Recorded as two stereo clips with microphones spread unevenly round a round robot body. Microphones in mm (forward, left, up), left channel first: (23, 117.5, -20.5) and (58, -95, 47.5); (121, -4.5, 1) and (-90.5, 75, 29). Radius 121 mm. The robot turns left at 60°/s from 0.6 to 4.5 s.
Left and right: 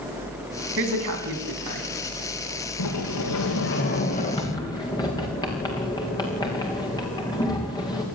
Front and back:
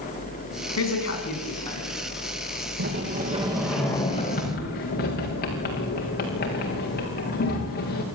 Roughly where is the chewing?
No chewing in this recording.